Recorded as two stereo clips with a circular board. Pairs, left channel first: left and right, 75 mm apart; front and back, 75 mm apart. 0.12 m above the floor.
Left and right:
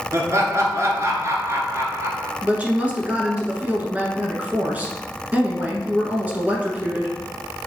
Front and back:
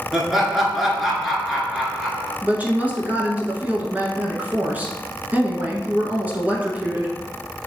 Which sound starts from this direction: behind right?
A woman speaking, at 2.4 s.